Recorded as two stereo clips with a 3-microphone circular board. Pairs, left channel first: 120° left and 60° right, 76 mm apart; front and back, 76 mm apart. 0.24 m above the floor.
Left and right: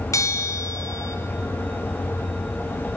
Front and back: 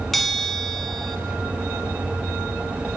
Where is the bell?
85° left, 1.5 m.